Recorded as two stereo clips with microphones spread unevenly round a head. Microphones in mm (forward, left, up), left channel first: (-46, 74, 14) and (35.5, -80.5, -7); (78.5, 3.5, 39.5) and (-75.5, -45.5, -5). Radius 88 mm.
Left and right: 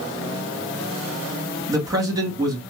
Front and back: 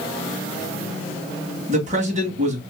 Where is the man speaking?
130° right, 2.0 m.